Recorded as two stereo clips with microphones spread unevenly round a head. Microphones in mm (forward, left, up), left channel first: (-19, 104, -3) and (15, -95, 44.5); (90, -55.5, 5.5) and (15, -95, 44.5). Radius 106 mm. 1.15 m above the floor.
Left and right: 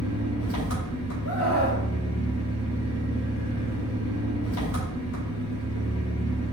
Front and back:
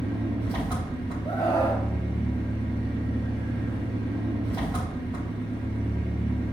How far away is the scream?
About 1.7 m.